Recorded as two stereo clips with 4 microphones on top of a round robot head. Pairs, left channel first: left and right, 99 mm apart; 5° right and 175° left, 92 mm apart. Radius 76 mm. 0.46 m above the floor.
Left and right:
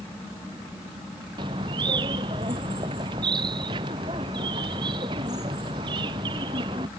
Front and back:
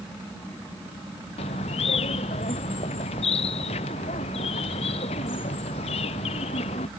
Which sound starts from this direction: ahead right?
A bird, at 1.4 s.